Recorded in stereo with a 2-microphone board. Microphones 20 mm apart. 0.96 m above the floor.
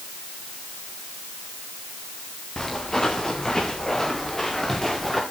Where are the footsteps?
30° left (ahead or behind), 8 m; by 5.2 s 15° left (ahead or behind), 5.5 m.